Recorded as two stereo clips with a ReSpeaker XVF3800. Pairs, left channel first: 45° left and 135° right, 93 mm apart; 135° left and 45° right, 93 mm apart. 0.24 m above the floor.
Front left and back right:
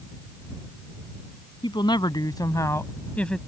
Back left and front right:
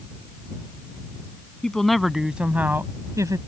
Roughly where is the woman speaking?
Ahead left.